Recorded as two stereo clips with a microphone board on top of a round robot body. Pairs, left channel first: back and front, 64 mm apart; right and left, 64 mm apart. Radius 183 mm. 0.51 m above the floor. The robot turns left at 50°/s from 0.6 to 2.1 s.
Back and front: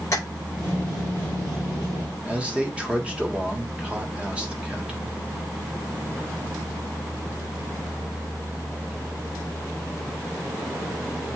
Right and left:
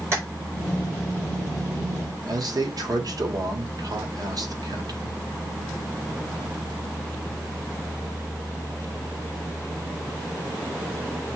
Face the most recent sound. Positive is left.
turn(degrees=70)